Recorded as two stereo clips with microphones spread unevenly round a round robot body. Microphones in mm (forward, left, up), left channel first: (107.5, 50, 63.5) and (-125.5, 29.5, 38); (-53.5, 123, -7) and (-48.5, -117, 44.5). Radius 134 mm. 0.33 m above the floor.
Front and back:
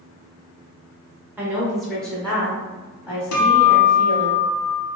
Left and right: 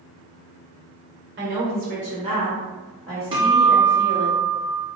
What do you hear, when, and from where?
1.4 s a woman speaking: 105° right, 1.2 m; by 4.3 s 60° left, 1.4 m
3.3 s a guitar: 15° right, 0.7 m